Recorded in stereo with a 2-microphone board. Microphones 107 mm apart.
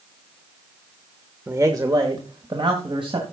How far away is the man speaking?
About 1.1 m.